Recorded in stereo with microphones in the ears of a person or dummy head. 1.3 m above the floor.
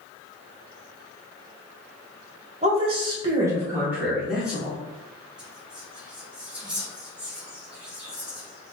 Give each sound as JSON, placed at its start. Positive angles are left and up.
{"t": 2.6, "sound": "a woman speaking", "side_deg": -40, "distance_m": 1.0}
{"t": 5.4, "sound": "whispering", "side_deg": -5, "distance_m": 1.0}